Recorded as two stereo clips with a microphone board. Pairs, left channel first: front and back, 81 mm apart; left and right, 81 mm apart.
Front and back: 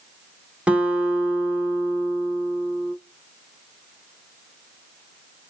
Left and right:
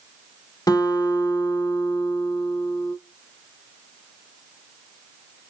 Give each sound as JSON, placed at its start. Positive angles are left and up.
{"t": 0.7, "sound": "a guitar", "azimuth_deg": 110, "distance_m": 1.0}